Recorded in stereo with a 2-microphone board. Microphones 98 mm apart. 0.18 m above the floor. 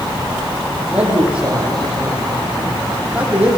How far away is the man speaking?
About 7 m.